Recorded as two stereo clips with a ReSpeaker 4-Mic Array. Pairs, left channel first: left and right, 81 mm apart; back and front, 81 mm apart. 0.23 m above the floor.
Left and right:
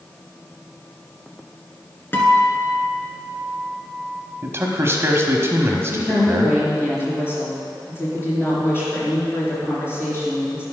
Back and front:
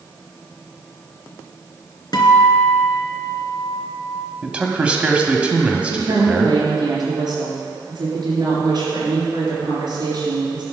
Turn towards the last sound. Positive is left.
turn(degrees=30)